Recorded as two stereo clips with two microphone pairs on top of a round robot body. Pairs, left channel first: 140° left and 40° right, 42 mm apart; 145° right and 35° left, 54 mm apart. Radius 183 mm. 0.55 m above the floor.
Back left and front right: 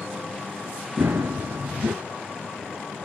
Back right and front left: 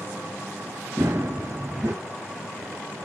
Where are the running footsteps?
5° right, 0.6 m.